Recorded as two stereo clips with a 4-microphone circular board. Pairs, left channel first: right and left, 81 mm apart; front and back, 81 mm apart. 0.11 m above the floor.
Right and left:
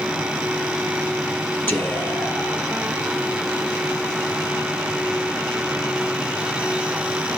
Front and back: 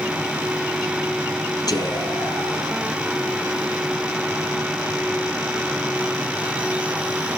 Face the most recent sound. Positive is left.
turn(degrees=-30)